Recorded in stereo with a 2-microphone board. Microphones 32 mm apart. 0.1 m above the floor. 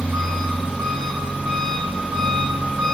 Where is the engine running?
60° right (ahead or behind), 1.8 m.